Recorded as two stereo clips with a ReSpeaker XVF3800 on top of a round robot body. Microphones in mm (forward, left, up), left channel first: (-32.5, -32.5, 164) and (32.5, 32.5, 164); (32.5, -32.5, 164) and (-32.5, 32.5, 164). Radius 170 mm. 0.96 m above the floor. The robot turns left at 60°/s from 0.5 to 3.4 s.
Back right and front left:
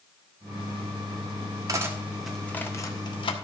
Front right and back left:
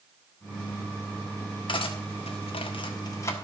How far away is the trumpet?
I don't hear a trumpet.